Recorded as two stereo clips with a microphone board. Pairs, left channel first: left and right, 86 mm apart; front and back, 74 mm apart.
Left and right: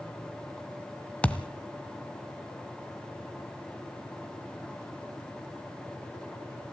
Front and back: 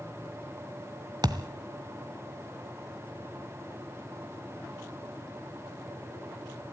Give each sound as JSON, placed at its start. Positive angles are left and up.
{"t": 1.2, "sound": "a thud", "azimuth_deg": 165, "distance_m": 1.0}